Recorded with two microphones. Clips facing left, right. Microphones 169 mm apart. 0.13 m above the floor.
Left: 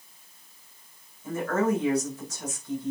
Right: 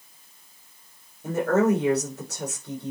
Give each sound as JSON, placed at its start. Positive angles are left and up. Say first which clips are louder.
{"t": 1.2, "sound": "a woman speaking", "louder": "right 5 dB", "side_deg": -70, "distance_m": 6.5}